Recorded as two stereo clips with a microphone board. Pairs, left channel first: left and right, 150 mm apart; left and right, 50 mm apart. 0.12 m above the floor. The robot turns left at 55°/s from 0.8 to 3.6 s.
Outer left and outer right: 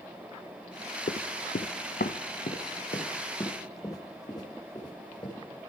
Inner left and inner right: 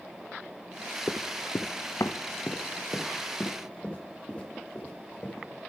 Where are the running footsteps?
65° left (ahead or behind), 0.5 m; by 5.3 s 25° left (ahead or behind), 3 m.